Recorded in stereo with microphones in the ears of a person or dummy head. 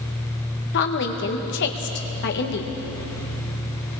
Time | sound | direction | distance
0.7 | a woman speaking | 55° left (ahead or behind) | 2.0 m